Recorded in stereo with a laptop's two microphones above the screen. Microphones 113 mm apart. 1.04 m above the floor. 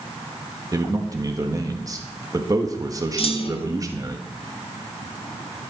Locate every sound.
0.7 s a man speaking: 30° right (ahead or behind), 1.5 m
3.2 s a clunk: 60° left (ahead or behind), 1.2 m